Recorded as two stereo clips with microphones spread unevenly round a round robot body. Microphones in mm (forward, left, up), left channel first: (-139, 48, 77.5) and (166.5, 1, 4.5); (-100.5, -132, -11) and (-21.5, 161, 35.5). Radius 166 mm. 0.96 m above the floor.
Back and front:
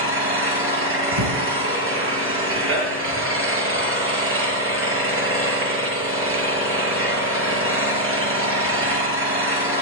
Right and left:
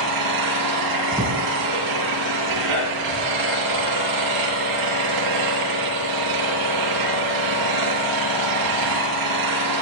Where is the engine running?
45° left, 6 m.